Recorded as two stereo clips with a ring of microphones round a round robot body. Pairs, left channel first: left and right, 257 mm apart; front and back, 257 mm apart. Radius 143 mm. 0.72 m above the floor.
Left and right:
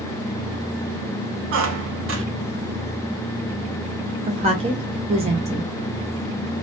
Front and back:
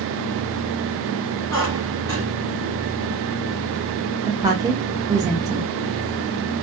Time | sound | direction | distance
1.5 | a squeak | 75° right | 0.8 m
4.3 | a woman speaking | 120° right | 0.6 m